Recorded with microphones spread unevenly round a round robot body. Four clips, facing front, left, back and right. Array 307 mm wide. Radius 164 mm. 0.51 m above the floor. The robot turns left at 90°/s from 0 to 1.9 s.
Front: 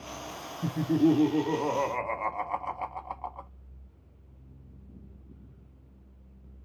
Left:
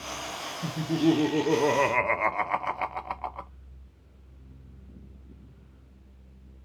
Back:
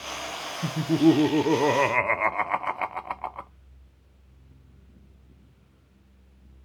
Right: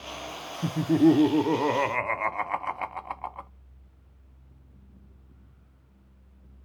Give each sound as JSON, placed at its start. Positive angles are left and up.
{"t": 0.6, "sound": "laughter", "azimuth_deg": -75, "distance_m": 0.8}